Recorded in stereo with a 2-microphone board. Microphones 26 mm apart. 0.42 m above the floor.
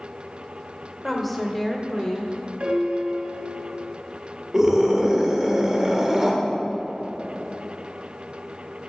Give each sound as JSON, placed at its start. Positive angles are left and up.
{"t": 1.0, "sound": "a woman speaking", "side_deg": -5, "distance_m": 1.2}
{"t": 2.6, "sound": "a piano", "side_deg": -65, "distance_m": 1.5}
{"t": 4.5, "sound": "a scream", "side_deg": -25, "distance_m": 1.4}